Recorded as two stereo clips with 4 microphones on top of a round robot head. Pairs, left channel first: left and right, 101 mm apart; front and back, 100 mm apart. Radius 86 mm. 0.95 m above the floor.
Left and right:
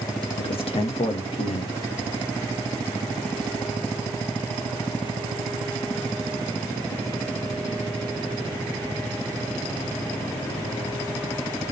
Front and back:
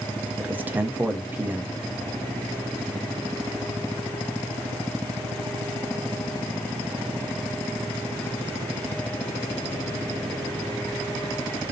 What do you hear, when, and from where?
0.4 s a man speaking: 105° left, 0.6 m